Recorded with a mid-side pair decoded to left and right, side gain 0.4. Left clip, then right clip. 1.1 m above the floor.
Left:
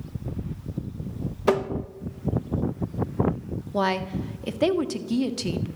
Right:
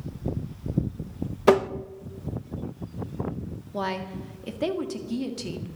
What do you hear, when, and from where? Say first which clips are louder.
1.5 s tapping: right 4 dB; 35° right, 0.8 m
3.7 s a woman speaking: left 5 dB; 40° left, 1.8 m